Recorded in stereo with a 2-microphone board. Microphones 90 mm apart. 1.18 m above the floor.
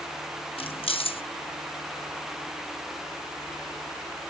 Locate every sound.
0.6 s keys jangling: 80° left, 0.9 m